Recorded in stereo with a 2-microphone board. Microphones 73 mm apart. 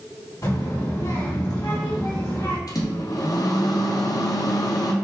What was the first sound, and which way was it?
A child speaking, 55° left (ahead or behind).